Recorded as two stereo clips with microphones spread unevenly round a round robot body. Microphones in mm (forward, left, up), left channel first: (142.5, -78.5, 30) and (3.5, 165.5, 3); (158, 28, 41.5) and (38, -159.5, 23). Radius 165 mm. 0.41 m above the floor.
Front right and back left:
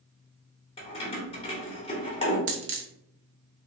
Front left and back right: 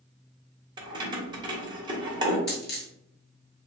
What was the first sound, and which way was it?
Keys jangling, 115° right.